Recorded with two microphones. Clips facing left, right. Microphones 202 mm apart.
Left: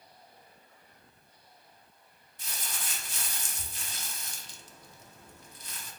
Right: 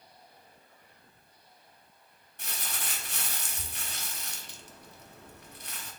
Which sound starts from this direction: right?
Crumpling, at 2.4 s.